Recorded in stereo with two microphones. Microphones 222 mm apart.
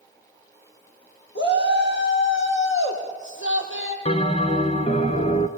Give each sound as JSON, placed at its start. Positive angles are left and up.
{"t": 1.4, "sound": "a shout", "side_deg": 55, "distance_m": 6.0}
{"t": 4.0, "sound": "a bell", "side_deg": 30, "distance_m": 1.0}